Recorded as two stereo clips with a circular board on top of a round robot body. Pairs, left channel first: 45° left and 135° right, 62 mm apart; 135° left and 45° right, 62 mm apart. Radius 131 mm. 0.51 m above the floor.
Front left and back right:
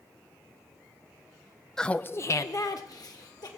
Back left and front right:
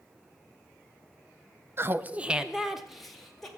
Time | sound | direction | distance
1.8 | laughter | 35° right | 0.7 m